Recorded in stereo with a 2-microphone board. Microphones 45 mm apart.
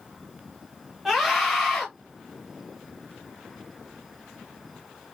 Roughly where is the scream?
Centre.